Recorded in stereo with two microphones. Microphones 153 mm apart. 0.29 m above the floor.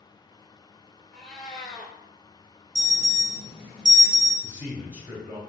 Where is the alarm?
30° right (ahead or behind), 1.5 m.